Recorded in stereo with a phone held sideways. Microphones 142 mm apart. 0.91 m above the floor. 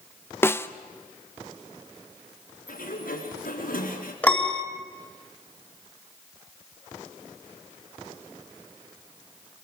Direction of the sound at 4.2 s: 10° left (ahead or behind).